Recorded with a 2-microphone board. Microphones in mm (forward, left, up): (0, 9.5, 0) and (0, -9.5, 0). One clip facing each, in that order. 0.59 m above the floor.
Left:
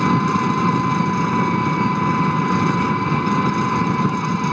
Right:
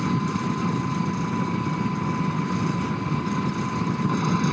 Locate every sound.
0.0 s an engine running: 45° left (ahead or behind)